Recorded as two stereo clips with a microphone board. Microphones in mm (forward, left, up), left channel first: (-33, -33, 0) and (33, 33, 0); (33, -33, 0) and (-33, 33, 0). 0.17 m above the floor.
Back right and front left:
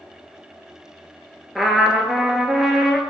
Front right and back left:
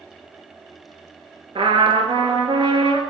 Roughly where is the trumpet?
Behind left.